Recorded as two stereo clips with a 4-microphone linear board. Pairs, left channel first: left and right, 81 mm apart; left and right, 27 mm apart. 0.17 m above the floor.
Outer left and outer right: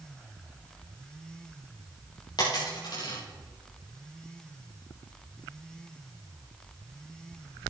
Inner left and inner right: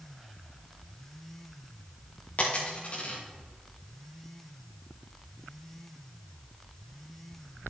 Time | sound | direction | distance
2.4 | a dropped coin | 60° left (ahead or behind) | 5.5 m